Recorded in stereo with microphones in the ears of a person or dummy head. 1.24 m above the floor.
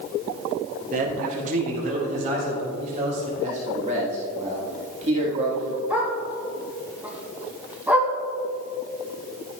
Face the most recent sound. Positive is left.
turn(degrees=-10)  # may be behind; listen again after turning